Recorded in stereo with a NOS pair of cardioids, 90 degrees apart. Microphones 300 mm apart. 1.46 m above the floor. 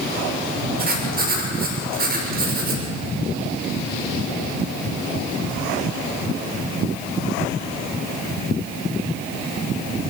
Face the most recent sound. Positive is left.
turn(degrees=-30)